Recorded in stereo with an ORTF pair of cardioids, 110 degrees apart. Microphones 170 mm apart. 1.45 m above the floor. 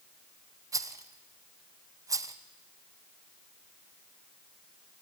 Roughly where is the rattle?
Ahead.